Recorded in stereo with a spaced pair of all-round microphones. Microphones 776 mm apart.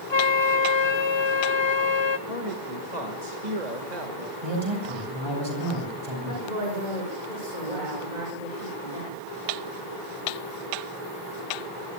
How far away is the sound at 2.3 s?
About 2 m.